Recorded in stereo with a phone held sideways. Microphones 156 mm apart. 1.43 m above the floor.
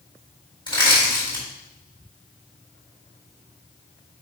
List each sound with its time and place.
0.7 s crushing: 30° left (ahead or behind), 4 m